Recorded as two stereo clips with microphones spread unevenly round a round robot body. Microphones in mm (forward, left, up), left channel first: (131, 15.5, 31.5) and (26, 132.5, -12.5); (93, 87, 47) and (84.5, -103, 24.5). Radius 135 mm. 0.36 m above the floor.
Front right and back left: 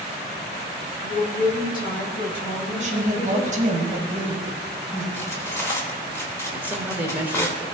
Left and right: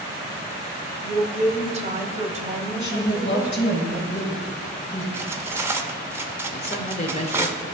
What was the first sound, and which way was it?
A woman speaking, 75° right.